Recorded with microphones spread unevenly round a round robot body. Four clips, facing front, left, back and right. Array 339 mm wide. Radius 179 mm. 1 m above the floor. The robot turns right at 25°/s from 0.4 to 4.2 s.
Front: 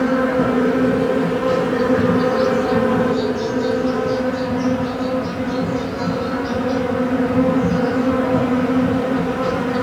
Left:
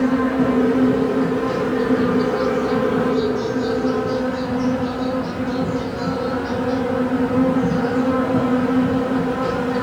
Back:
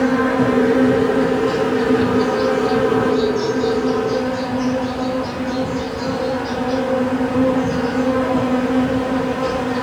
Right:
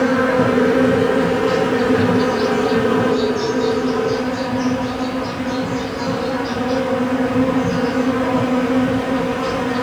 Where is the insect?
70° right, 2.0 m; by 9.8 s 25° left, 2.0 m.